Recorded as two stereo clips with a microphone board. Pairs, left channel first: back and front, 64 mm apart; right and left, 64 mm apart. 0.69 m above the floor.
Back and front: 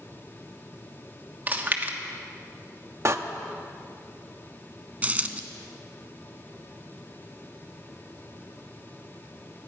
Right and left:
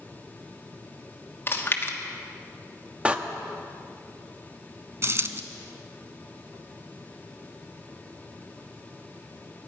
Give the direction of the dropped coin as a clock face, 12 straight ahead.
10 o'clock.